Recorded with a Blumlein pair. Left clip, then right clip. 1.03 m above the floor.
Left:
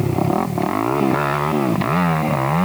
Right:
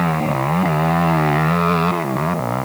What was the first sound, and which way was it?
Only background noise.